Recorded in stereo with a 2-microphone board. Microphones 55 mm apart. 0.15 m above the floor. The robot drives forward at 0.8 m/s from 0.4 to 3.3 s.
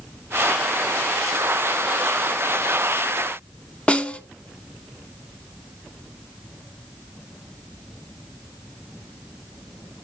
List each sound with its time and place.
3.9 s a snare drum: 20° left (ahead or behind), 0.6 m